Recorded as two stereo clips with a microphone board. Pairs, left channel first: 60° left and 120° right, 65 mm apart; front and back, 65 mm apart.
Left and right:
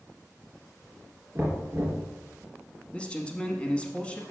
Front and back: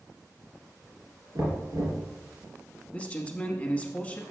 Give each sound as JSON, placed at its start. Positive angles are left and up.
{"t": 1.4, "sound": "knocking", "azimuth_deg": -170, "distance_m": 3.0}
{"t": 2.9, "sound": "a man speaking", "azimuth_deg": 20, "distance_m": 1.0}